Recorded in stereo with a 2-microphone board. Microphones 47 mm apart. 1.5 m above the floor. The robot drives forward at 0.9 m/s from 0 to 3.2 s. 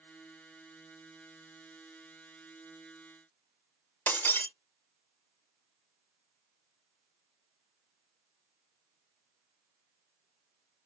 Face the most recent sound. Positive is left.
turn(degrees=45)  # may be behind; listen again after turning